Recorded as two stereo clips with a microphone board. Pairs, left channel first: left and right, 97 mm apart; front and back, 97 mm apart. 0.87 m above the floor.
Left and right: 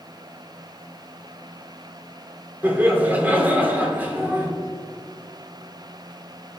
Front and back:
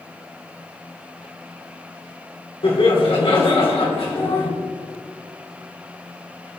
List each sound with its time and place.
2.6 s laughter: 20° right, 2.5 m